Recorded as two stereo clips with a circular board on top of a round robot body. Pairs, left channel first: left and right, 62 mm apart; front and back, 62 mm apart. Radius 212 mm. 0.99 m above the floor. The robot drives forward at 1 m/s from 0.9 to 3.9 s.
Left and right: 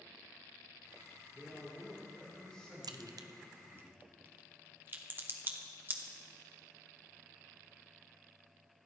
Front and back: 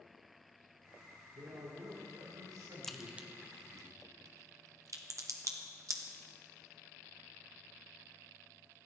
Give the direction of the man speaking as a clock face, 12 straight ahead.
6 o'clock.